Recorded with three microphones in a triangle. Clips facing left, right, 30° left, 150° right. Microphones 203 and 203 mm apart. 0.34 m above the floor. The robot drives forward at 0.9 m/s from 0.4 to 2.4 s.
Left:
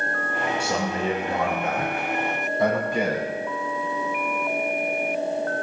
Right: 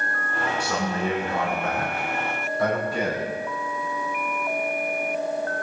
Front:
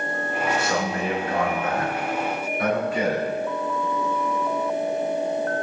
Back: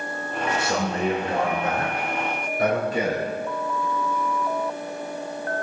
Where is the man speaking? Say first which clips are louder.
Right 1 dB, back 1 dB; 150° left, 3 m; by 3.3 s 160° left, 4.5 m.